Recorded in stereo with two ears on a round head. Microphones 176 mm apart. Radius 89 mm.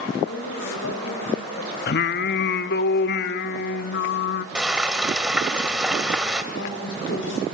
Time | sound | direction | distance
0.2 | a woman speaking | 75° left (ahead or behind) | 3.5 m
1.9 | singing | 55° left (ahead or behind) | 0.6 m
4.5 | frying | 5° right (ahead or behind) | 1.8 m
6.5 | a woman speaking | 70° left (ahead or behind) | 4 m